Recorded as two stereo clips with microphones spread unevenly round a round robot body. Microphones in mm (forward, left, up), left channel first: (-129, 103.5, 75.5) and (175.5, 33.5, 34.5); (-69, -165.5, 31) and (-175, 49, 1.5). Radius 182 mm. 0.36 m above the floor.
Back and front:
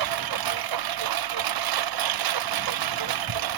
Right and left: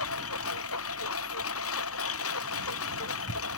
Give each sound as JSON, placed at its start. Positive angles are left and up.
{"t": 0.0, "sound": "a lawn mower", "azimuth_deg": -10}